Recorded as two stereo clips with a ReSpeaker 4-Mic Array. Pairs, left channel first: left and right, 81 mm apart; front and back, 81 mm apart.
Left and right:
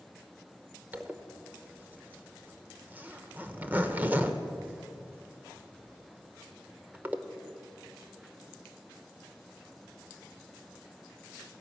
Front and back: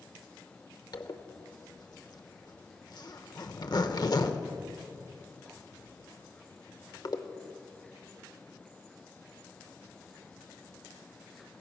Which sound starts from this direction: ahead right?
A zipper, at 0.9 s.